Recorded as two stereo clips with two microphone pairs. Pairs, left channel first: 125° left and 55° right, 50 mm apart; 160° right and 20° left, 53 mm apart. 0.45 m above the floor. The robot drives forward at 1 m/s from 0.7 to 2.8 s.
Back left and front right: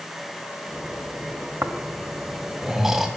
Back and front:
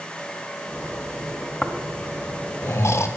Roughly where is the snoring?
Right.